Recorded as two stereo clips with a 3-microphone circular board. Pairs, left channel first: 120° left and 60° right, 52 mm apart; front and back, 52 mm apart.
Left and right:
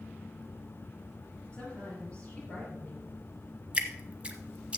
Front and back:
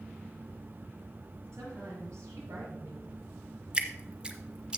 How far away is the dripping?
About 0.8 m.